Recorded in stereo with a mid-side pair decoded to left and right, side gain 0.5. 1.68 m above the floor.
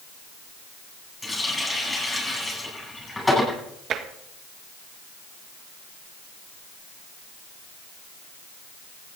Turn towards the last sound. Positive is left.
turn(degrees=-55)